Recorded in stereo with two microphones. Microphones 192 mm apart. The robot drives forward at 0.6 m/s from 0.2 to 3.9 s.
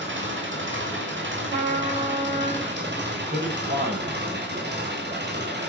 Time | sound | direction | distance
0.0 | an engine running | 80° right | 6.5 m
1.5 | a trumpet | 45° right (ahead or behind) | 8.5 m
3.1 | a man speaking | 55° right (ahead or behind) | 8 m